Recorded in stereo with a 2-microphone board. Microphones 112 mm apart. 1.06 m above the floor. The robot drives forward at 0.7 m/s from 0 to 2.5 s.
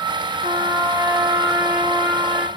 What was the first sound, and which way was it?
A trumpet, 35° right (ahead or behind).